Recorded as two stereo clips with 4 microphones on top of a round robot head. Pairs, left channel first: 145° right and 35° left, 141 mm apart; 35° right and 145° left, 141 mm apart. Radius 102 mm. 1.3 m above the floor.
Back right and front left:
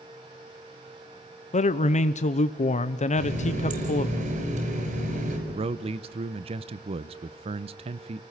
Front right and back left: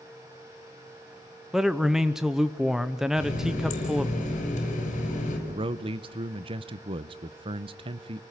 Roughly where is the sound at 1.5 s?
Behind right.